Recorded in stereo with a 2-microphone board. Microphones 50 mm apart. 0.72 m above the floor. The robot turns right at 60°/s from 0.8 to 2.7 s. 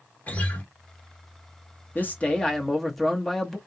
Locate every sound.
0.3 s a guitar: 30° left (ahead or behind), 1.4 m
1.9 s a man speaking: 125° left, 1.0 m; by 3.6 s 170° left, 1.0 m